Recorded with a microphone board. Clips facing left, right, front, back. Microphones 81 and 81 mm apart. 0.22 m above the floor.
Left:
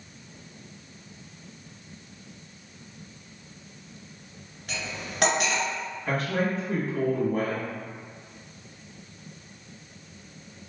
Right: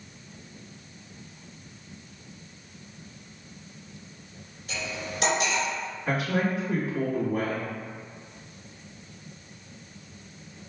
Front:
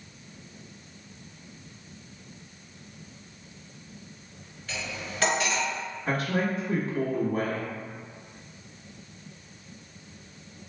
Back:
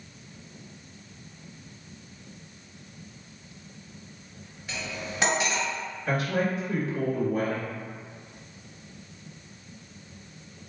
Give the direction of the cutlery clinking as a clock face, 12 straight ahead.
8 o'clock.